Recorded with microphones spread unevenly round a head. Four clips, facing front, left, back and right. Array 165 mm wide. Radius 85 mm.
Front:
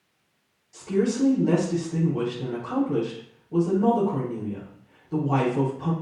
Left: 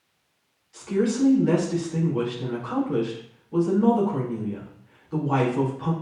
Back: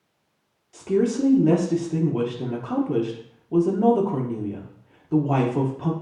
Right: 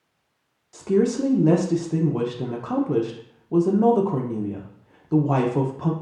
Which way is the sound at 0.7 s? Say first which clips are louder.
Right 3 dB, back 2 dB; 110° right.